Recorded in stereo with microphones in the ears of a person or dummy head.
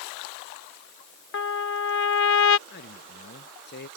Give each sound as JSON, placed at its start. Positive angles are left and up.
{"t": 1.3, "sound": "a trumpet", "side_deg": 65}
{"t": 2.7, "sound": "a man speaking", "side_deg": 55}